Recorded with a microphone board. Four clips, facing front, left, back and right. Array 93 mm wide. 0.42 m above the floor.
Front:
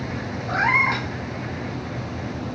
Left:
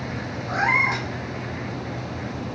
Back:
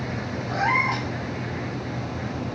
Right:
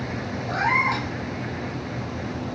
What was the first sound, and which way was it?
A cat meowing, 15° left.